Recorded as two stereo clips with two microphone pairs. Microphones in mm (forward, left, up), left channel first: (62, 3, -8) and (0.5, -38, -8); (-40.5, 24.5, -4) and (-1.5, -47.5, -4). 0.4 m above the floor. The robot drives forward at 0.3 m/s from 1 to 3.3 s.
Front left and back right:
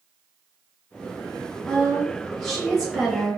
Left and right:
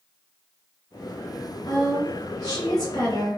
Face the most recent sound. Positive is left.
turn(degrees=130)